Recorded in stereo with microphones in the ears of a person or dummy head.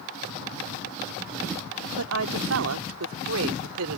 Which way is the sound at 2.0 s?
85° right.